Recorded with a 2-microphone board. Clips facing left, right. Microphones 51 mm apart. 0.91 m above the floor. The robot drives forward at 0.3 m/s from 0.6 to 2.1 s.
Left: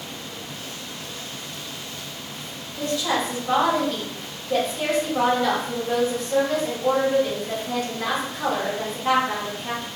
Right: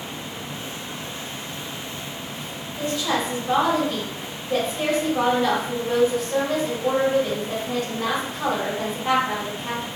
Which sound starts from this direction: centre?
A woman speaking, at 2.8 s.